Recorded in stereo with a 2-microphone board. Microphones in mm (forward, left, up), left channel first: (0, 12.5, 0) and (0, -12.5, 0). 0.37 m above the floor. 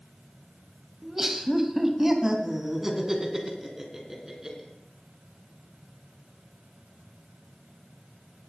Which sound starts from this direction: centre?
Laughter, at 1.0 s.